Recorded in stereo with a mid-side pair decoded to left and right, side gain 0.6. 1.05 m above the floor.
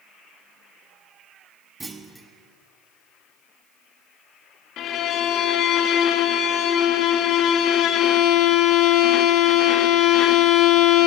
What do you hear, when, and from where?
1.8 s a clunk: 20° right, 1.0 m
4.8 s a violin: 55° left, 0.7 m